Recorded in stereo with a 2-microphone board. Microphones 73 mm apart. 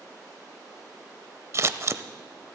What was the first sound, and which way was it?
Scissors, 40° right (ahead or behind).